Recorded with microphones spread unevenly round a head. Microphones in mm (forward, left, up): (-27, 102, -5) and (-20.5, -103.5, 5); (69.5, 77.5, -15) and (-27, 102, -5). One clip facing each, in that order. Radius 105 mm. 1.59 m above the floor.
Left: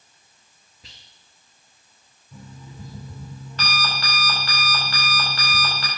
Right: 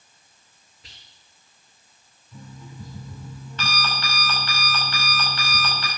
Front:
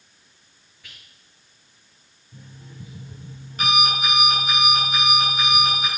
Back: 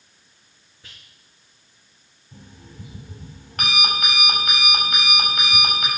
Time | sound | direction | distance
0.8 | whispering | 105° left | 2.5 m
2.3 | an alarm clock | 145° left | 5 m